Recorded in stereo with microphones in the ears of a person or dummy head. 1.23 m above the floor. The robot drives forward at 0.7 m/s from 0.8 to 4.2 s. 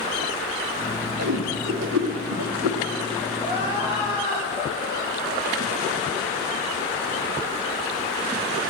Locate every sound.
1.2 s a whoosh: 60° right (ahead or behind), 2 m; by 2.8 s 85° right, 1.9 m
3.4 s crying: 25° right (ahead or behind), 8 m; by 5.7 s 20° right (ahead or behind), 8.5 m